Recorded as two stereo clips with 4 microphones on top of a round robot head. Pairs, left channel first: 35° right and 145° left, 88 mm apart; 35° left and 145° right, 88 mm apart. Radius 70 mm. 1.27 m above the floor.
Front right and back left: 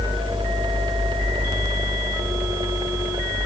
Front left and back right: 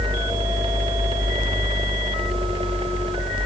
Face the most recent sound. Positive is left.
No sound to turn to.